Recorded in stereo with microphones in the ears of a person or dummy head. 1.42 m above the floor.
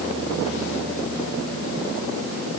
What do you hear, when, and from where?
Only background noise.